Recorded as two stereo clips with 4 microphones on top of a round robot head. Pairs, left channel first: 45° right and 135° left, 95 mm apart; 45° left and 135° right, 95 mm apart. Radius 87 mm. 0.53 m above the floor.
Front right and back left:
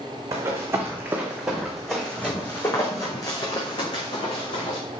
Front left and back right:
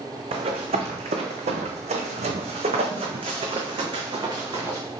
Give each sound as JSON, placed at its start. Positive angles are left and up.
{"t": 0.3, "sound": "running footsteps", "azimuth_deg": -165, "distance_m": 1.7}